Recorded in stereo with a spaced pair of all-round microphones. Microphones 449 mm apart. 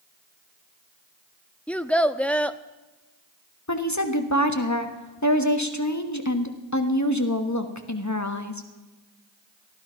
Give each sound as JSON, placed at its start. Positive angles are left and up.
{"t": 1.7, "sound": "a child speaking", "side_deg": 5, "distance_m": 0.7}
{"t": 3.7, "sound": "a woman speaking", "side_deg": 40, "distance_m": 1.4}